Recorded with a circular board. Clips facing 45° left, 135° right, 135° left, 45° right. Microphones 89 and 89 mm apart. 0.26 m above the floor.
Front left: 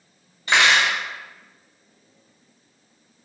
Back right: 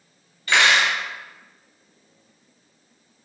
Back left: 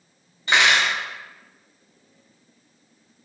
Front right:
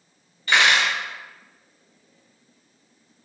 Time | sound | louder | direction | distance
0.5 | cutlery clinking | even, even | 90° left | 0.8 m